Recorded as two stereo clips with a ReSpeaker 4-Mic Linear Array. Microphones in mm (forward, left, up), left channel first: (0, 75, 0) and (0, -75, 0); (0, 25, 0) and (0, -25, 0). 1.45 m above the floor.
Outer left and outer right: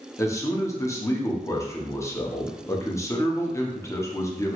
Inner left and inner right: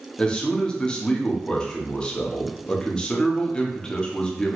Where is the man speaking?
20° left (ahead or behind), 0.6 m.